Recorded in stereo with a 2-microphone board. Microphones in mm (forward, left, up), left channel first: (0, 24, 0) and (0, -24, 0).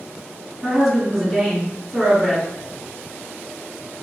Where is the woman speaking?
5° right (ahead or behind), 1.8 m.